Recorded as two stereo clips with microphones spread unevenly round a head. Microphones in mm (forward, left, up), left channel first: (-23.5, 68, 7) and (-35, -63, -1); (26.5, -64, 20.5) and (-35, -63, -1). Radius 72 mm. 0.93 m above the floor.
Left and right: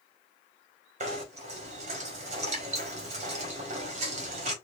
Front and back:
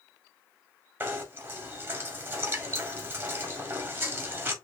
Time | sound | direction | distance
1.0 | knocking | 130° right | 2.0 m